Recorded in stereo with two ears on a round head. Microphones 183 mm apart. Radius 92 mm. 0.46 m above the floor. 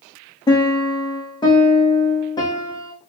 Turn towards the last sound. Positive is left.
turn(degrees=20)  # may be behind; listen again after turning